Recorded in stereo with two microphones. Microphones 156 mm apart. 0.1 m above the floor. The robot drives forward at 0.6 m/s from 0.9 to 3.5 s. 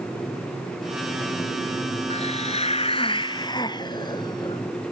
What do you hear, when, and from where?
2.1 s a hiss: 40° left (ahead or behind), 0.7 m; by 4.6 s 25° left (ahead or behind), 1.0 m